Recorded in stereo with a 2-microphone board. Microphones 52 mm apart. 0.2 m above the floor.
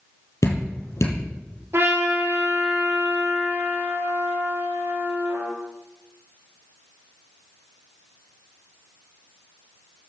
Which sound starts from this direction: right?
A trumpet, at 1.7 s.